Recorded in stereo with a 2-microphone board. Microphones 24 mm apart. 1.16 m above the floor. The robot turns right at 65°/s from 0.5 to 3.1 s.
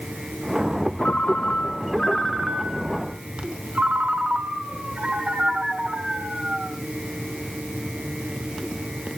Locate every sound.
1.0 s a ringtone: 100° left, 2.5 m; by 6.8 s 125° right, 2.5 m